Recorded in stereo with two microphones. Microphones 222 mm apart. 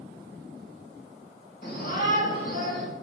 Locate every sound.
1.6 s a shout: 45° left (ahead or behind), 2.5 m